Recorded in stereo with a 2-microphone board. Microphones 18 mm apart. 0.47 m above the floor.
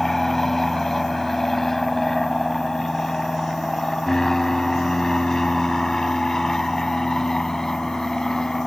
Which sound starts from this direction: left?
An aircraft, at 0.0 s.